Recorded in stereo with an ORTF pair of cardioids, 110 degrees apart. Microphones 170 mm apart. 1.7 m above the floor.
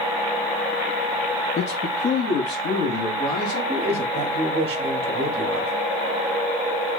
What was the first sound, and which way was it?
A man speaking, 40° left.